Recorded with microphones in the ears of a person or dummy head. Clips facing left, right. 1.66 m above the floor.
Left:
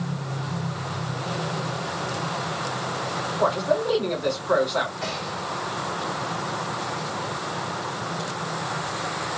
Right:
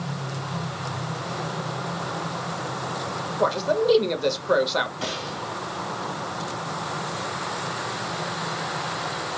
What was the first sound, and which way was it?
A man speaking, 45° right (ahead or behind).